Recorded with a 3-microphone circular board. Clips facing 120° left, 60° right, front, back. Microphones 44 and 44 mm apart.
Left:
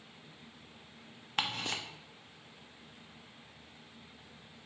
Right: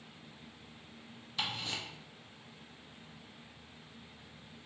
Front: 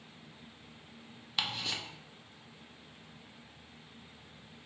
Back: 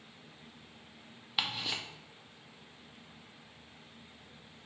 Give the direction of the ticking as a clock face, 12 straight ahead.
9 o'clock.